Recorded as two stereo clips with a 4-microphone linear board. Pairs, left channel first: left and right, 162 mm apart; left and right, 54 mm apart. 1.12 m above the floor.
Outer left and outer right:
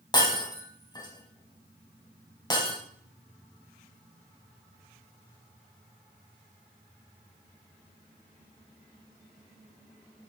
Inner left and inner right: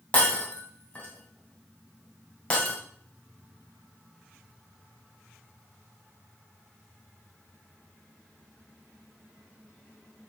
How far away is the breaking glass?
About 3 m.